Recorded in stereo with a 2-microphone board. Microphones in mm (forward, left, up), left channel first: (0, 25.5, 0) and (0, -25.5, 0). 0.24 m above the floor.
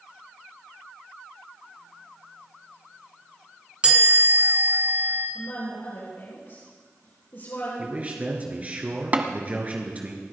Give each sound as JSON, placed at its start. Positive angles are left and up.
{"t": 3.8, "sound": "a chime", "side_deg": -25, "distance_m": 3.0}
{"t": 5.3, "sound": "a woman speaking", "side_deg": 60, "distance_m": 6.5}
{"t": 7.8, "sound": "a man speaking", "side_deg": -30, "distance_m": 3.0}
{"t": 9.1, "sound": "tapping", "side_deg": -30, "distance_m": 1.2}